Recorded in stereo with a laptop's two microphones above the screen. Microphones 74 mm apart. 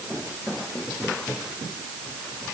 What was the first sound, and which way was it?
Only background noise.